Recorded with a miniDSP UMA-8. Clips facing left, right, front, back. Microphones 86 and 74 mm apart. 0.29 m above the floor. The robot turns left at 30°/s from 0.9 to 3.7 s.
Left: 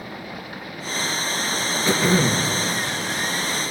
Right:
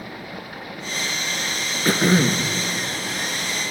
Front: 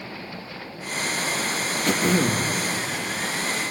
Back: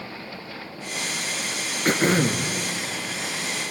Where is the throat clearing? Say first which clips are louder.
Right 2 dB, back 1 dB; 130° right, 2.5 m; by 2.5 s 150° right, 2.5 m.